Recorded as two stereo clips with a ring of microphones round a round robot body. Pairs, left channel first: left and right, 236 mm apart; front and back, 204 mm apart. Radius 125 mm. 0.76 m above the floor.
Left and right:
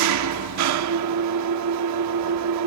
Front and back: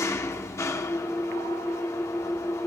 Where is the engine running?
80° right, 1.0 m.